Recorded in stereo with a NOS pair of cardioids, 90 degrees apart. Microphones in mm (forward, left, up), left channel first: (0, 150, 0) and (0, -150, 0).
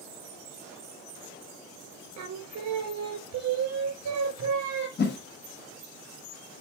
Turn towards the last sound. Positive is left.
turn(degrees=35)